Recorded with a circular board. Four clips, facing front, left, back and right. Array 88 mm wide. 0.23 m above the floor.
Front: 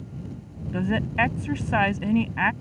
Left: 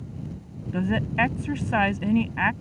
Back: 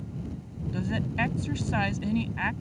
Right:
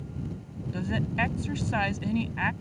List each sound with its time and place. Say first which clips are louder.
0.7 s a woman speaking: left 5 dB, front 6 dB; 35° left